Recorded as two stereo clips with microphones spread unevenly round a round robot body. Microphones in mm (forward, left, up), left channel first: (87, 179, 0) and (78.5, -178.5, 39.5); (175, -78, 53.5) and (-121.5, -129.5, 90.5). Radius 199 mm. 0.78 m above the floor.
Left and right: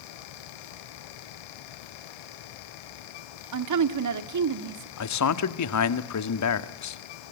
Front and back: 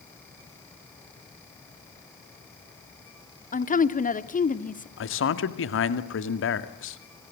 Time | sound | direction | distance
3.5 | a woman speaking | 50° right | 2.0 m
5.0 | a man speaking | 55° left | 1.8 m